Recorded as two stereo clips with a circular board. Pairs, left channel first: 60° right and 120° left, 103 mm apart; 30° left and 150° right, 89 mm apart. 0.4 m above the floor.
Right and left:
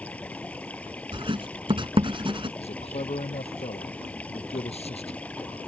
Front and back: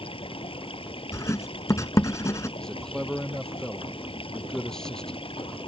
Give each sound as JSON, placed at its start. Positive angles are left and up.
{"t": 0.0, "sound": "running water", "azimuth_deg": 15}
{"t": 1.1, "sound": "writing", "azimuth_deg": 85}
{"t": 2.6, "sound": "a man speaking", "azimuth_deg": -55}